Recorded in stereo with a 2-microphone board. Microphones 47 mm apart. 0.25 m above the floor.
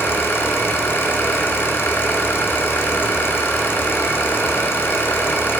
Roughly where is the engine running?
Left.